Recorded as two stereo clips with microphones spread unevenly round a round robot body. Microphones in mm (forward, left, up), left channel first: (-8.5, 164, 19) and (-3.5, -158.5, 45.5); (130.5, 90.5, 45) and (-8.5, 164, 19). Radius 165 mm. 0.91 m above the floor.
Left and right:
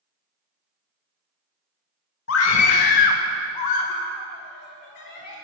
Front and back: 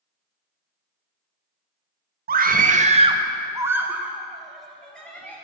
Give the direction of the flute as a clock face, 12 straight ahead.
I don't hear a flute.